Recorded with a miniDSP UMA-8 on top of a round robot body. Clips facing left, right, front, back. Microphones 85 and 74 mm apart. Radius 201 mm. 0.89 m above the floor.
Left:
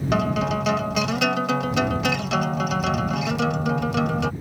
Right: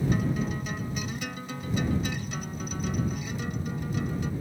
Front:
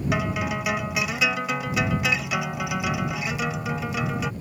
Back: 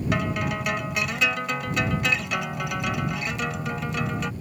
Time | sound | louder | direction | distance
0.1 | a guitar | left 7 dB, even | 85° left | ?